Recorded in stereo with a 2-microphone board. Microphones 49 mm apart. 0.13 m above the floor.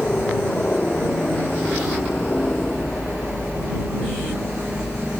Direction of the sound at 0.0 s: 25° left (ahead or behind).